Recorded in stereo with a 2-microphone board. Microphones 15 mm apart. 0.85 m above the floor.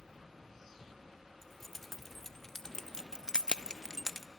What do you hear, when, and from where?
1.4 s keys jangling: 20° left (ahead or behind), 2.5 m; by 4.3 s 15° left (ahead or behind), 1.0 m